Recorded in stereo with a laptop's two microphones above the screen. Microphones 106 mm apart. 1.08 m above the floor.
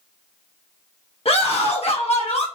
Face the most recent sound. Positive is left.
turn(degrees=70)  # may be behind; listen again after turning